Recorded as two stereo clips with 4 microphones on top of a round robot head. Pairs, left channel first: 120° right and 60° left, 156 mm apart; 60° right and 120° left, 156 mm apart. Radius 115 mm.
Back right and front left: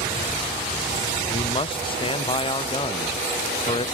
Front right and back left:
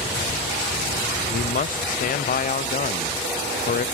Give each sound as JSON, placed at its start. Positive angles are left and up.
{"t": 1.3, "sound": "a man speaking", "azimuth_deg": -70, "distance_m": 0.8}